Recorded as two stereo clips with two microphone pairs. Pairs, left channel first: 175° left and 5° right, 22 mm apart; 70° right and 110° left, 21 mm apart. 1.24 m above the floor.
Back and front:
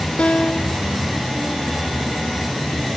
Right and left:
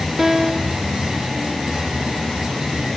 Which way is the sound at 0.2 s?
170° right.